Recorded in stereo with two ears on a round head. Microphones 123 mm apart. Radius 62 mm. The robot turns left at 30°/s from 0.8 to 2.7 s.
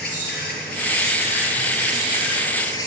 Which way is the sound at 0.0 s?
85° left.